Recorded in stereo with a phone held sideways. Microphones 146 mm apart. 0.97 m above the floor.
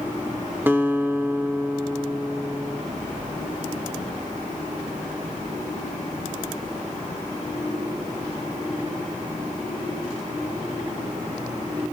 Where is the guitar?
15° right (ahead or behind), 0.6 m.